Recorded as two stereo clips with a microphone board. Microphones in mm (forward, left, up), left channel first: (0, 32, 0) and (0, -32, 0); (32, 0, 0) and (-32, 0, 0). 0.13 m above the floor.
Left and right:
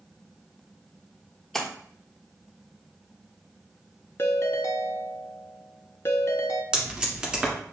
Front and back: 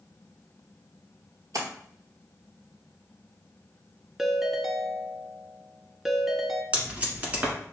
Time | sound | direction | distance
1.5 | a splash | 175° left | 1.0 m
4.2 | a ringtone | 95° left | 0.5 m
6.7 | tape being pulled | 150° right | 1.2 m